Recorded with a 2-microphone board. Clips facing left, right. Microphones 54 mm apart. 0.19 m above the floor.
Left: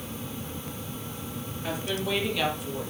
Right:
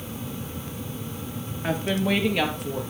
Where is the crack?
No crack in this recording.